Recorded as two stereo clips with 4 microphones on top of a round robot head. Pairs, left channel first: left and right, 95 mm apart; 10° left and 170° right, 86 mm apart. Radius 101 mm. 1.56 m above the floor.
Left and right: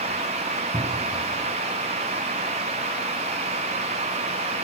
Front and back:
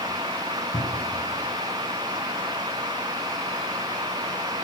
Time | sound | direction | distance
0.7 | a cupboard door | 25° right | 4.5 m